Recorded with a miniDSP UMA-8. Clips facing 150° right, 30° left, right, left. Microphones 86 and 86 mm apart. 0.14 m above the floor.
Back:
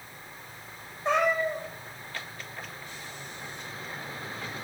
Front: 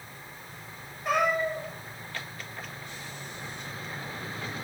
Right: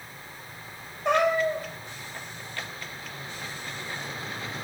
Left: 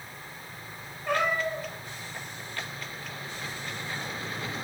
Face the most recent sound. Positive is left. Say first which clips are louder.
# back 1 dB, right 5 dB
turn(degrees=-85)